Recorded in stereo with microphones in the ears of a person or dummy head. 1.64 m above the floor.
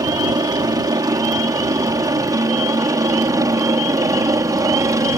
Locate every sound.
0.0 s a helicopter: 20° right (ahead or behind); by 5.2 s 15° right (ahead or behind)